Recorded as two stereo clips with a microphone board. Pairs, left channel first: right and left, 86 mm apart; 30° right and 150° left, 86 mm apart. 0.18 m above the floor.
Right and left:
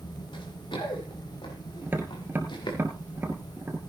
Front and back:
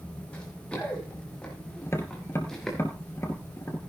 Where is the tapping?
25° left, 2.5 m.